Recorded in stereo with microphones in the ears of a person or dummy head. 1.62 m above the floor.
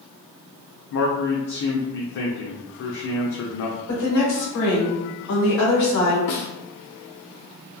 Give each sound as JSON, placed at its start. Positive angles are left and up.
{"t": 0.9, "sound": "a man speaking", "side_deg": 65, "distance_m": 0.5}
{"t": 3.9, "sound": "a woman speaking", "side_deg": 75, "distance_m": 1.6}
{"t": 6.3, "sound": "a snare drum", "side_deg": 60, "distance_m": 0.5}